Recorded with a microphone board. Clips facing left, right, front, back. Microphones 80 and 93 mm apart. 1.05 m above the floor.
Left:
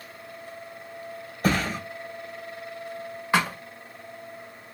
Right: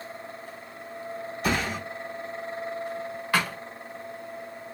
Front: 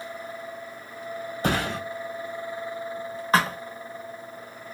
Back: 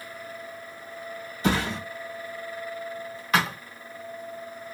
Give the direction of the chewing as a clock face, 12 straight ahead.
I don't hear chewing.